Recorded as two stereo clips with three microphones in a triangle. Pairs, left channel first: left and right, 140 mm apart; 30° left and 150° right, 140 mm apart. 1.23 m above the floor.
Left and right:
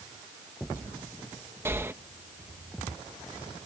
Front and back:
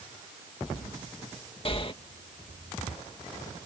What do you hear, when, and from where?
1.6 s breathing: 20° right